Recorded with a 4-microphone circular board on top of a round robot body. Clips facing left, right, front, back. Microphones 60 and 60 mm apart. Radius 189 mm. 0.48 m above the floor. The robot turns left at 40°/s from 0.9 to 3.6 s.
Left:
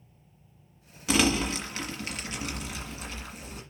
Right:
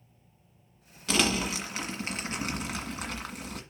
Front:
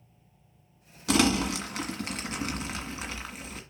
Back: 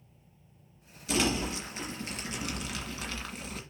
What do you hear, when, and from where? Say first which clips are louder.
1.1 s crumpling: left 3 dB, front 5 dB; 10° left, 1.7 m; by 3.6 s 90° right, 1.7 m